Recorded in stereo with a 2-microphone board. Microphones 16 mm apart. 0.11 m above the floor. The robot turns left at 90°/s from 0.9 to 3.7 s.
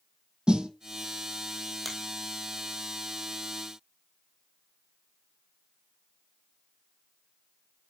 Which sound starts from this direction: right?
A snare drum, at 0.5 s.